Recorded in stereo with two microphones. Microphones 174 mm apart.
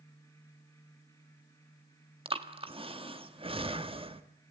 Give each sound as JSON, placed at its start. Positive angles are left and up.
{"t": 2.2, "sound": "breathing", "side_deg": -35, "distance_m": 1.5}